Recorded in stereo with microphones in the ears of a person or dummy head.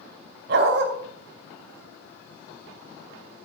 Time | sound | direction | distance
0.5 | a dog barking | 65° right (ahead or behind) | 2.5 m